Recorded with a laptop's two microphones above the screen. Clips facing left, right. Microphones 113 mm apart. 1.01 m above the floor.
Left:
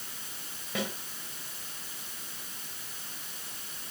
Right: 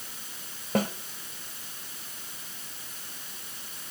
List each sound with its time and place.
0.8 s a snare drum: 45° right (ahead or behind), 2.5 m